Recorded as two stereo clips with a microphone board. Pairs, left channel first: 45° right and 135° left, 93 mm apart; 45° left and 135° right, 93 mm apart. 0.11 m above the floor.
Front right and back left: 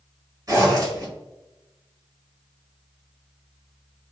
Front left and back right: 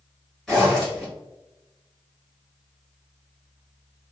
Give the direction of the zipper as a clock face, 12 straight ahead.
8 o'clock.